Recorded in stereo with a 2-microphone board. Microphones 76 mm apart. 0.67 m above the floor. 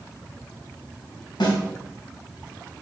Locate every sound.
1.4 s a snare drum: 85° left, 3 m